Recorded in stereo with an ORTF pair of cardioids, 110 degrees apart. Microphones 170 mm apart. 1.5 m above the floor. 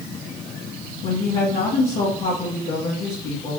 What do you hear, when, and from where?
1.0 s a woman speaking: 60° left, 2.5 m